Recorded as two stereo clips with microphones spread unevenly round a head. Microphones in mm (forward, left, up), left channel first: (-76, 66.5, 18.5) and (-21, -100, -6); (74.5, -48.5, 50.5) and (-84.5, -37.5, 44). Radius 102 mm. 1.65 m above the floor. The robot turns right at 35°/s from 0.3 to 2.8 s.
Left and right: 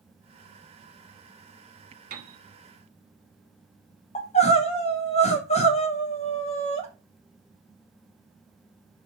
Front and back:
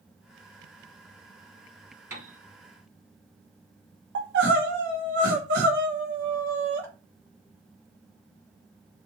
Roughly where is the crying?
Behind.